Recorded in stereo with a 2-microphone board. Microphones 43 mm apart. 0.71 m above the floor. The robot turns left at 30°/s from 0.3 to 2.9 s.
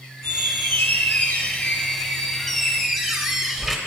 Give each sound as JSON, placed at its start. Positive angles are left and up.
{"t": 0.2, "sound": "a squeak", "azimuth_deg": 70, "distance_m": 0.8}